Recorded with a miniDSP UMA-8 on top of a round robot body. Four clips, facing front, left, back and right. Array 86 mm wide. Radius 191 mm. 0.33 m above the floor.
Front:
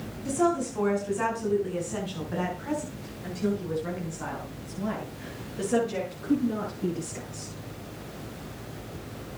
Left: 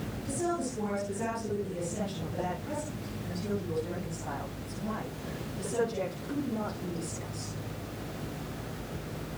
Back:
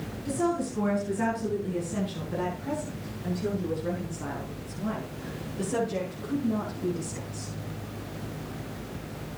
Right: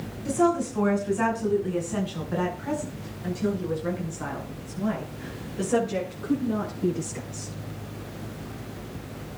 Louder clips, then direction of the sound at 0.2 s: Right 10 dB, front 2 dB; 65° right.